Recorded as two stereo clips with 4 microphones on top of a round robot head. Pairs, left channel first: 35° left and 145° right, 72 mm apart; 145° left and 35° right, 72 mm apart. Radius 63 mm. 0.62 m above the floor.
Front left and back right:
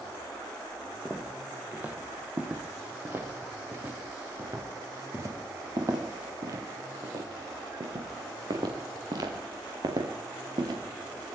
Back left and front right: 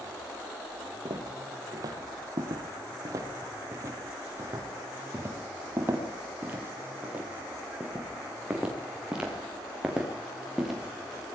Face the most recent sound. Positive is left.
turn(degrees=-120)